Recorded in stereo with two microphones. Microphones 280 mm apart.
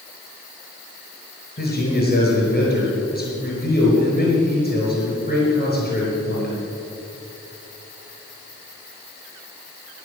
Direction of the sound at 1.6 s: 30° left (ahead or behind).